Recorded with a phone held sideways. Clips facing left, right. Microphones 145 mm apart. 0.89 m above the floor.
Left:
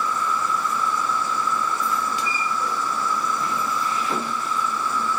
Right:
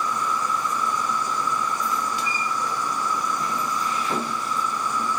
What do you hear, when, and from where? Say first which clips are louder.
0.0 s an insect: left 1 dB; 15° right (ahead or behind)